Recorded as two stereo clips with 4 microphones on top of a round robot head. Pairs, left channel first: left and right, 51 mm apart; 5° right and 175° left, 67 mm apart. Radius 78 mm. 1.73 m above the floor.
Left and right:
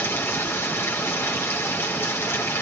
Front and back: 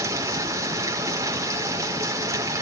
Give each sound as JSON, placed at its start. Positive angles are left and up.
{"t": 0.0, "sound": "running water", "azimuth_deg": 130, "distance_m": 5.0}